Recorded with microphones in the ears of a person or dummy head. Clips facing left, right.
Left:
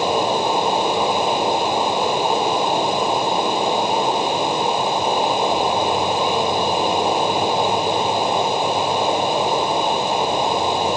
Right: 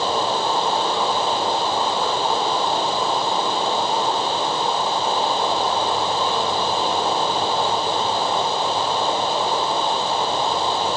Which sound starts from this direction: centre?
Running water, at 0.0 s.